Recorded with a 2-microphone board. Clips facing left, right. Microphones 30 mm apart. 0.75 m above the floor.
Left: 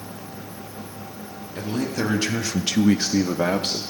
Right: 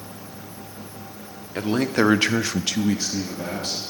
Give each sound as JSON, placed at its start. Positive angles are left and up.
{"t": 1.6, "sound": "a man speaking", "side_deg": -65, "distance_m": 1.5}